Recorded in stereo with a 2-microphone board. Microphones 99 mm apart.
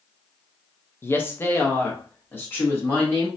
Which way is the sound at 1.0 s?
25° left (ahead or behind).